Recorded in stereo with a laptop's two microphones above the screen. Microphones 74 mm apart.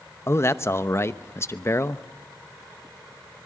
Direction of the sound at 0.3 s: 35° left (ahead or behind).